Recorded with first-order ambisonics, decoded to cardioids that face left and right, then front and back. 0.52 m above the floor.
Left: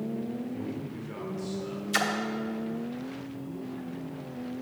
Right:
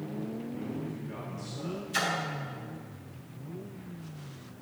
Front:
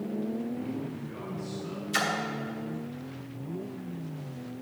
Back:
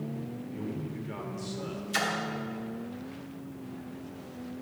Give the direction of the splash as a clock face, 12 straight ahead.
9 o'clock.